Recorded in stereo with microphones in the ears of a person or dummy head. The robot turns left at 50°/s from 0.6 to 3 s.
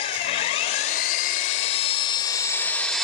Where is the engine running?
125° left, 0.8 m; by 3.0 s 5° left, 0.8 m.